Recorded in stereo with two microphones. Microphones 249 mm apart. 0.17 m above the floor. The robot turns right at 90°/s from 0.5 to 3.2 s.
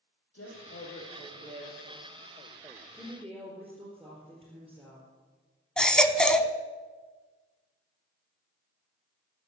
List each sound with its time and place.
0.3 s a woman speaking: 105° left, 5.5 m; by 1.9 s 130° right, 5.5 m
2.9 s a woman speaking: 15° left (ahead or behind), 3.5 m; by 5.1 s 5° right (ahead or behind), 3.5 m
5.8 s a baby crying: 5° left (ahead or behind), 0.7 m